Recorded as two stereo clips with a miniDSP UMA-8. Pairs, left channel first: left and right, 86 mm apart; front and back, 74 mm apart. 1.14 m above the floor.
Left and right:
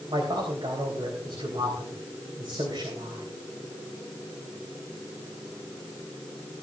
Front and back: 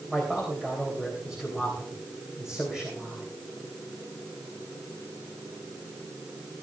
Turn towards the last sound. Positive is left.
turn(degrees=-95)